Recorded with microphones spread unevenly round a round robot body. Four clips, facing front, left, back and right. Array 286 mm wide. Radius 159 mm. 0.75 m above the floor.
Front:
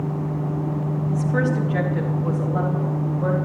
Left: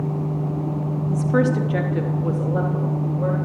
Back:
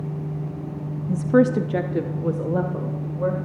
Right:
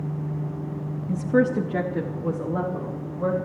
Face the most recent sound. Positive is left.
turn(degrees=-175)